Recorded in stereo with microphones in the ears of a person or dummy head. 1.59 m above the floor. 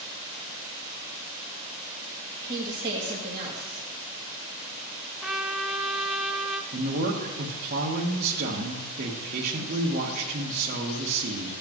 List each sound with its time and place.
2.4 s a woman speaking: 25° right (ahead or behind), 2 m
5.2 s a trumpet: 5° right (ahead or behind), 0.6 m
6.7 s a woman speaking: 45° right (ahead or behind), 1.2 m